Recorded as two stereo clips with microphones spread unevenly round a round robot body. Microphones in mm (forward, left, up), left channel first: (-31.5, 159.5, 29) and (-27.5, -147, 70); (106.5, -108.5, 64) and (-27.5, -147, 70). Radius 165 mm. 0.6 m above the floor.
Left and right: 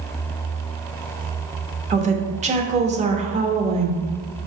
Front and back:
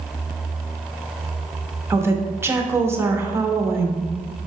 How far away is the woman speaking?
About 1.2 m.